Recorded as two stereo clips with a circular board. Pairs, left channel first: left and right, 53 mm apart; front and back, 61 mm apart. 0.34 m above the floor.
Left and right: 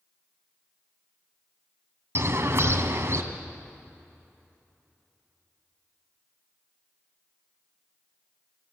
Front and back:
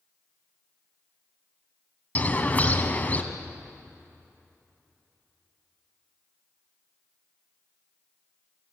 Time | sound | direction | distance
2.1 | a bird | 60° right | 1.7 m